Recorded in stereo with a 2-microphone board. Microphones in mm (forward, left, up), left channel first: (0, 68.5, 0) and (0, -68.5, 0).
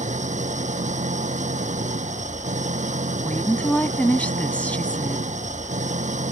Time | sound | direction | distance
0.0 | an engine running | 60° right (ahead or behind) | ?
3.2 | a woman speaking | 10° left (ahead or behind) | ?